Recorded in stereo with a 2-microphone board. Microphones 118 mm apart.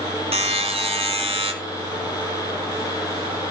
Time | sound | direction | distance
0.3 | a buzzer | 55° right (ahead or behind) | 2.5 m